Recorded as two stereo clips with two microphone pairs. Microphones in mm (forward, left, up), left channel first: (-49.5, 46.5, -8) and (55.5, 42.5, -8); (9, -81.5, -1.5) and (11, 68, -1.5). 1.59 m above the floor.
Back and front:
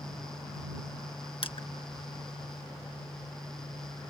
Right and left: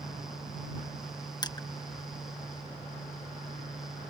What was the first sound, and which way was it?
Crushing, 155° right.